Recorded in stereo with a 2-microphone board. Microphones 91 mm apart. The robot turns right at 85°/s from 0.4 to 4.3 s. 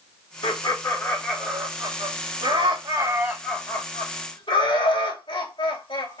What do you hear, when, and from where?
0.4 s laughter: 70° left (ahead or behind), 2.5 m; by 6.2 s 75° left (ahead or behind), 2.5 m